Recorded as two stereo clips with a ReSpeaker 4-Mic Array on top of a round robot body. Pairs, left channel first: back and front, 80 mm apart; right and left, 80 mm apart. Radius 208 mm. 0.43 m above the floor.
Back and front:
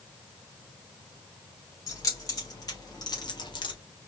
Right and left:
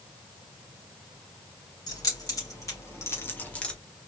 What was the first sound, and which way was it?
Keys jangling, 130° right.